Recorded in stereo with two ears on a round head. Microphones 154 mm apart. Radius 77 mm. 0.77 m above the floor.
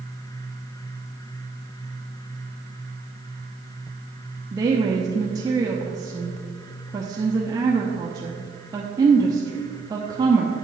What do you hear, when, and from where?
4.5 s a woman speaking: 20° right (ahead or behind), 0.7 m